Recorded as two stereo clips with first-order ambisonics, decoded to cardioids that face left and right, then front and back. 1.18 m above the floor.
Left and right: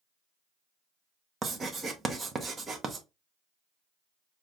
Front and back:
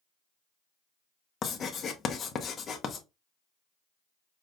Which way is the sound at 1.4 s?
35° right.